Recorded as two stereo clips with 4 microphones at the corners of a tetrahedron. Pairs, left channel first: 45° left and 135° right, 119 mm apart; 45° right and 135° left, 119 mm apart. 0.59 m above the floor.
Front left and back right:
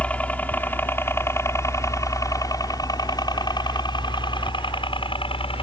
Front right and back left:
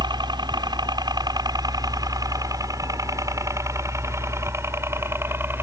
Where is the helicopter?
120° left; by 5.6 s 65° left.